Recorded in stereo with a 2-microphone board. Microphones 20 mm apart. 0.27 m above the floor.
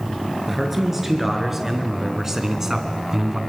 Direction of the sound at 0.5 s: 10° right (ahead or behind).